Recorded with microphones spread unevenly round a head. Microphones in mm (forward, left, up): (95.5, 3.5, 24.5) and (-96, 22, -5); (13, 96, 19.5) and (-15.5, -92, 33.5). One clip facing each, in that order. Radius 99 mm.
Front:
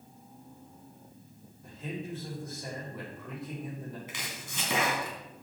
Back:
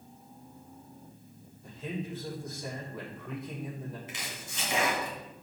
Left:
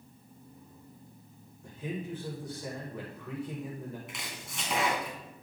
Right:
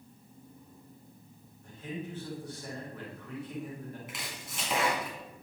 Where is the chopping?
10° right, 3 m.